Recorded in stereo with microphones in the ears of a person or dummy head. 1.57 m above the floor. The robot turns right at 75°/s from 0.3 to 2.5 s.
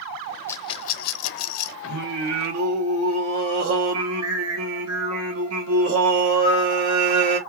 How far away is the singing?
About 1.7 m.